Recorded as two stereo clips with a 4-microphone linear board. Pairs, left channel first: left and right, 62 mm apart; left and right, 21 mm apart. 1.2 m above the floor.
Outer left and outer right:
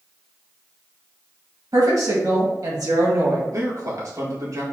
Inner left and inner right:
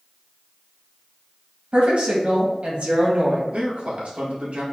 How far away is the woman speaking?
About 1.9 m.